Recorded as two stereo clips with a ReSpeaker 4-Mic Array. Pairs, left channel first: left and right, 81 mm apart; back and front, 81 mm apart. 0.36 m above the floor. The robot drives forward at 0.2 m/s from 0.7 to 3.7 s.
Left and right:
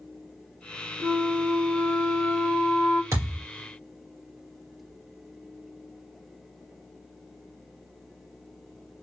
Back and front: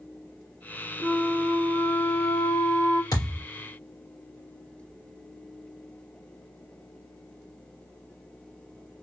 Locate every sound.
1.0 s a flute: 145° left, 1.5 m; by 3.0 s 155° left, 1.8 m
3.1 s a thud: 145° right, 3.5 m